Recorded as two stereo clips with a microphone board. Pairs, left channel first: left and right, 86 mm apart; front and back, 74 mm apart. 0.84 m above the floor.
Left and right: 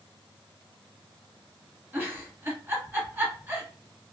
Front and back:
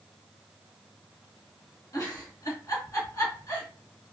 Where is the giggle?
30° right, 1.3 m.